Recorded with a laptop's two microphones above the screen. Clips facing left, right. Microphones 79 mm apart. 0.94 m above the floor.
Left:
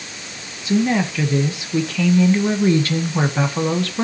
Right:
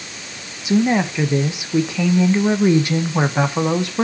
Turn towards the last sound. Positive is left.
turn(degrees=-20)  # may be behind; listen again after turning